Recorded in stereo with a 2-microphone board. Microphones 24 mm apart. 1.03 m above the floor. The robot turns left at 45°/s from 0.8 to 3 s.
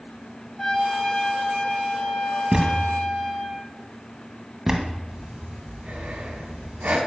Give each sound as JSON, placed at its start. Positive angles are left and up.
{"t": 0.6, "sound": "a trumpet", "azimuth_deg": 160, "distance_m": 2.5}
{"t": 2.5, "sound": "a thud", "side_deg": -40, "distance_m": 1.6}
{"t": 5.1, "sound": "breathing", "side_deg": -75, "distance_m": 2.5}